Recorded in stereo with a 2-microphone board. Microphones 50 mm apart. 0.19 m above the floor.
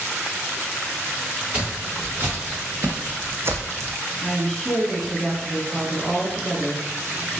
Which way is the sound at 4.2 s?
5° left (ahead or behind).